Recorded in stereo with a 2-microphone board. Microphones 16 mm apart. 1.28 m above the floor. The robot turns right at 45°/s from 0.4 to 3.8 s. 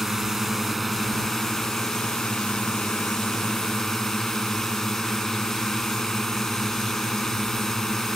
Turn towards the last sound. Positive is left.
turn(degrees=145)